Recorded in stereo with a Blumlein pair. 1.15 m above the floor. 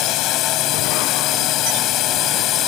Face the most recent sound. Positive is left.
turn(degrees=35)